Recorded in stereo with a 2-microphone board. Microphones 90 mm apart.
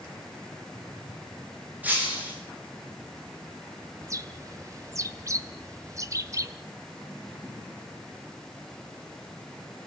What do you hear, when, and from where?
1.8 s breaking glass: 20° right (ahead or behind), 7.5 m
4.0 s a bird: 35° right (ahead or behind), 1.1 m